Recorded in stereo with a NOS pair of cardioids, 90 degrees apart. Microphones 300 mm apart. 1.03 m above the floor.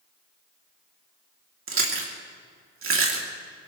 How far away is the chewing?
About 3 m.